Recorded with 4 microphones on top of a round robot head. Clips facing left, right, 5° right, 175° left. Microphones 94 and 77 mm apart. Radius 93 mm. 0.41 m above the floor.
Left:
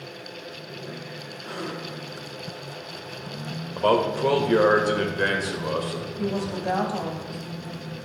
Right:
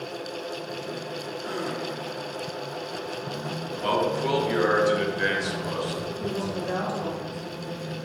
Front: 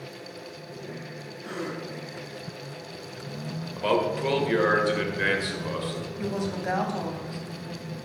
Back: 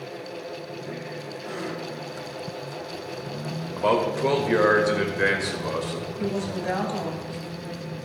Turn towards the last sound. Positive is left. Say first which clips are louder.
# left 5 dB, back 2 dB
turn(degrees=75)